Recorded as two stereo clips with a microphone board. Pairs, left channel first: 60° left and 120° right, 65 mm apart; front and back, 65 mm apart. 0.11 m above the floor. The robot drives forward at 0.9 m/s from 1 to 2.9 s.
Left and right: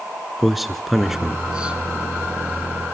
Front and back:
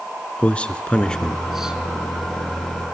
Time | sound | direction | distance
0.4 | a man speaking | 35° right | 1.2 m